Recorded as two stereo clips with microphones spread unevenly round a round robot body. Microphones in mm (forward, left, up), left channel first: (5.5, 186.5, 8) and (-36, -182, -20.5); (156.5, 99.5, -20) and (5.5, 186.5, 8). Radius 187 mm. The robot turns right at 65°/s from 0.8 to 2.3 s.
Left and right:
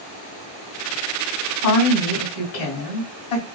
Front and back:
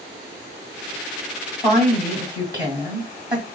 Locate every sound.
1.6 s a woman speaking: 35° left, 2 m; by 3.5 s 80° left, 2 m